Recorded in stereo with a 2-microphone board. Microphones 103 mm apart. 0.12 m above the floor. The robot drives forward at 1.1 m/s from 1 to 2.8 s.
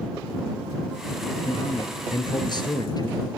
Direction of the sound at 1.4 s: 50° left (ahead or behind).